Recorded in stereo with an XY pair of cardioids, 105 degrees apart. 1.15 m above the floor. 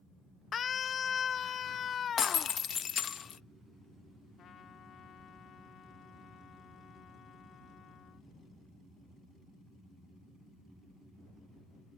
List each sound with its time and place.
0.5 s a scream: 50° left; by 2.5 s 55° left
2.2 s breaking glass: 50° left
4.4 s a trumpet: 60° left